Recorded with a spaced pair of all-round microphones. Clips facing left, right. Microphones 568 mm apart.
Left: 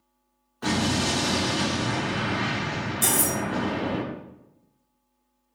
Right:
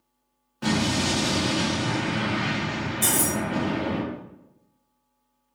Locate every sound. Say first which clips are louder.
0.6 s an explosion: right 1 dB; 50° right (ahead or behind), 1.5 m
3.0 s cutlery clinking: even; 35° left (ahead or behind), 1.3 m